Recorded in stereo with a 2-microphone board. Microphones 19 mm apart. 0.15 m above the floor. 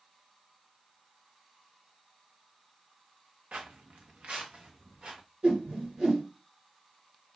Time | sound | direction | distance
3.5 | footsteps | 65° right (ahead or behind) | 0.6 m
5.4 | a whoosh | 65° right (ahead or behind) | 3.5 m